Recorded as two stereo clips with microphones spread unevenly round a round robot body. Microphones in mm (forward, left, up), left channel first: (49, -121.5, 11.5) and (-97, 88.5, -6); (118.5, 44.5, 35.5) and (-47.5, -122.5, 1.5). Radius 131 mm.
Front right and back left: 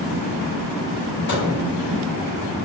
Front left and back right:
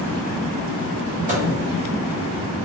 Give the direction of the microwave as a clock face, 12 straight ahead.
3 o'clock.